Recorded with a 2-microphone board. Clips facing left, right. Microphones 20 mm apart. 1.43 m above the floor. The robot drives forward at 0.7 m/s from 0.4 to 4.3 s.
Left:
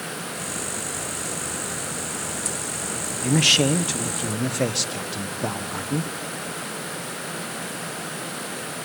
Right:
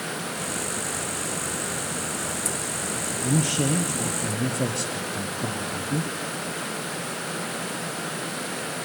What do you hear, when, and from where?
3.2 s a man speaking: 70° left (ahead or behind), 0.7 m; by 6.1 s 45° left (ahead or behind), 0.9 m